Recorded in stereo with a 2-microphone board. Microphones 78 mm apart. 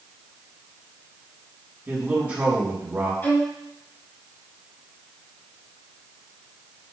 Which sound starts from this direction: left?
A violin, at 3.2 s.